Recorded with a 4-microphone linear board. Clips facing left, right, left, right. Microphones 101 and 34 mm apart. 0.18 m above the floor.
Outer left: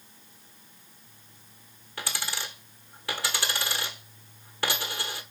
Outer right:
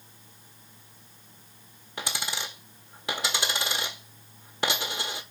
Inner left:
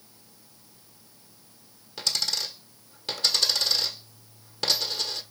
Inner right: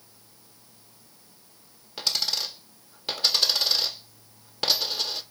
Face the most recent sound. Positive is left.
turn(degrees=-20)  # may be behind; listen again after turning